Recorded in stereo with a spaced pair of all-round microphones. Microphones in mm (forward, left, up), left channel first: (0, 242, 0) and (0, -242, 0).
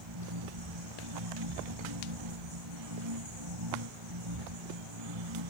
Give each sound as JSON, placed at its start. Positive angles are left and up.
{"t": 0.0, "sound": "a machine running", "side_deg": -70}